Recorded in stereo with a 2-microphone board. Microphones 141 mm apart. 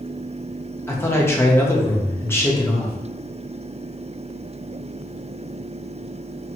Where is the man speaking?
15° left (ahead or behind), 0.7 m.